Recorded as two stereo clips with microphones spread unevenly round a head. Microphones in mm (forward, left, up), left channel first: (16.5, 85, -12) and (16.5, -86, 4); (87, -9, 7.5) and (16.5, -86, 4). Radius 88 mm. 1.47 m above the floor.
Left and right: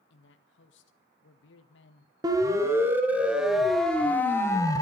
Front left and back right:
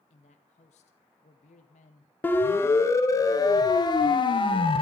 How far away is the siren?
About 2.5 m.